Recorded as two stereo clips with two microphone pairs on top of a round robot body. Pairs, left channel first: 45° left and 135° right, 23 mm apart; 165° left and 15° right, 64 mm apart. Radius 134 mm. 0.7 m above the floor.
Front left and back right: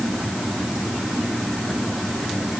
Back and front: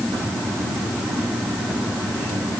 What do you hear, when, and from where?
Only background noise.